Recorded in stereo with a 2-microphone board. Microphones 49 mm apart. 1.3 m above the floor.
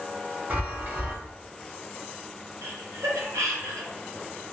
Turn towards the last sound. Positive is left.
turn(degrees=-80)